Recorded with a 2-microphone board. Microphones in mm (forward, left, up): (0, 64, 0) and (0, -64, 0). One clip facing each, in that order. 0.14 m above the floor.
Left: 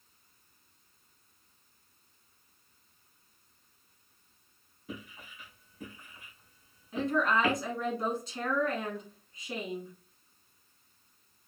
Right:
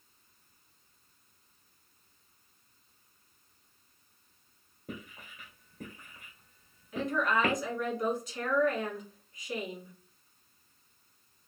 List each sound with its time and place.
4.9 s writing: 50° right (ahead or behind), 1.8 m
6.9 s a woman speaking: 30° left (ahead or behind), 1.6 m